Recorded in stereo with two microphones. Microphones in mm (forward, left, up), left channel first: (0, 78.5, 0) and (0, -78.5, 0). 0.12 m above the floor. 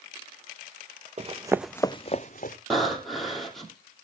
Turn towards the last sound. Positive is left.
turn(degrees=0)  # may be behind; listen again after turning